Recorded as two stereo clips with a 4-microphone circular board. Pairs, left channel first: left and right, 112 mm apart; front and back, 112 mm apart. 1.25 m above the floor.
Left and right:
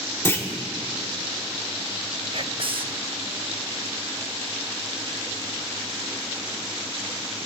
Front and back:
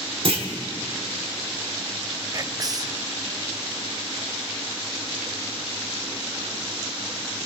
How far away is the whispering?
About 0.6 m.